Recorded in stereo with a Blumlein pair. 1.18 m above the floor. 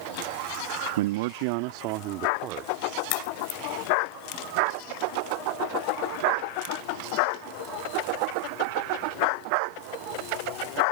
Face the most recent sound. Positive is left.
turn(degrees=45)